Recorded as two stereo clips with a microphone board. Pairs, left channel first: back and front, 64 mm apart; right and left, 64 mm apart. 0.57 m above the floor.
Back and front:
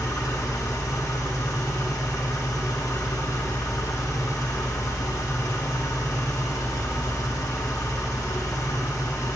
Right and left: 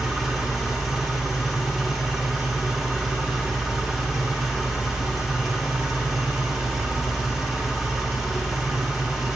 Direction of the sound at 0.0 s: 175° left.